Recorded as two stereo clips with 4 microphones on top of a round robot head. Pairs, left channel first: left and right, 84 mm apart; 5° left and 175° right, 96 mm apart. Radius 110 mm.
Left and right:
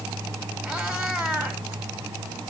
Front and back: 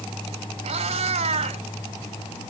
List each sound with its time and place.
0.6 s a cat meowing: 175° right, 1.2 m